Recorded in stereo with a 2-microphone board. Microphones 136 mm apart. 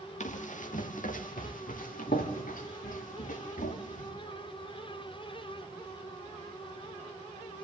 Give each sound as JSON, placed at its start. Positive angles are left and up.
{"t": 0.2, "sound": "running footsteps", "side_deg": 65, "distance_m": 3.0}